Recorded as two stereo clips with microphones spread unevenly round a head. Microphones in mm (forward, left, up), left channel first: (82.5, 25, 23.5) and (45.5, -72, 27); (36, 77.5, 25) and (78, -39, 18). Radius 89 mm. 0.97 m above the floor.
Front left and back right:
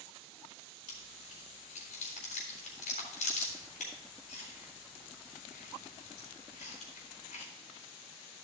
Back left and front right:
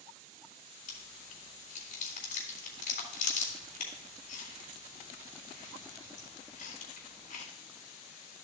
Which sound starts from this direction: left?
Chewing, at 0.9 s.